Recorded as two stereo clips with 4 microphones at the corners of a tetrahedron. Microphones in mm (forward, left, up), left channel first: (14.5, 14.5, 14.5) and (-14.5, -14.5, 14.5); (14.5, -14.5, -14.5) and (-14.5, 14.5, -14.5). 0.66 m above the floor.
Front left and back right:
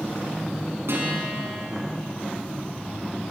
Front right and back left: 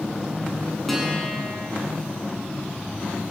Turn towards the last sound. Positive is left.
turn(degrees=-130)